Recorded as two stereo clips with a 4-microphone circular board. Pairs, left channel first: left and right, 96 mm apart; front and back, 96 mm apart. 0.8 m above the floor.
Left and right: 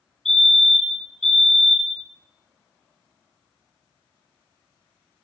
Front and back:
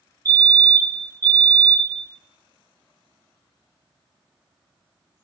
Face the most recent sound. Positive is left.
turn(degrees=170)